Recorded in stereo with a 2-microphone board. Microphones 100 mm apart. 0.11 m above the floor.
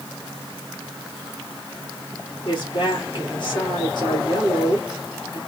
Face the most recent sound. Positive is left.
turn(degrees=50)  # may be behind; listen again after turning